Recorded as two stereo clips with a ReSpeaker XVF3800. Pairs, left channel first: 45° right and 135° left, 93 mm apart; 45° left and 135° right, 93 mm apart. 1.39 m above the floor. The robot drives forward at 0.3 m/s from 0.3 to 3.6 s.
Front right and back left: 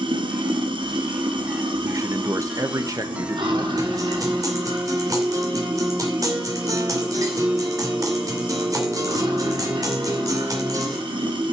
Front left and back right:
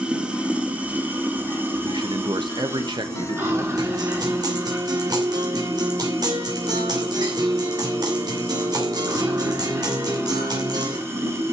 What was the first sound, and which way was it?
Running water, 150° left.